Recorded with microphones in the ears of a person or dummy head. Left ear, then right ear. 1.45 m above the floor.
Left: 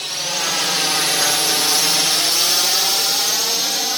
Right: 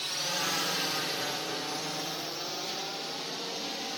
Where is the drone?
10° left (ahead or behind); by 4.0 s 45° left (ahead or behind).